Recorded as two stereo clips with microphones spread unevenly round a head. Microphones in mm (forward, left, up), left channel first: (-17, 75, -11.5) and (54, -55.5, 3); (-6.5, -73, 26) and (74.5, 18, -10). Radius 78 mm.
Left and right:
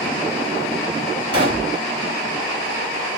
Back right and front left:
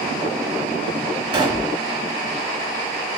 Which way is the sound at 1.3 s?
10° right.